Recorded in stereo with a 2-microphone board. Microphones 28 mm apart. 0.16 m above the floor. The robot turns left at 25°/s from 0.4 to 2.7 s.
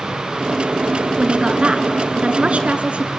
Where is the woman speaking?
50° right, 1.6 m; by 3.1 s 85° right, 1.6 m.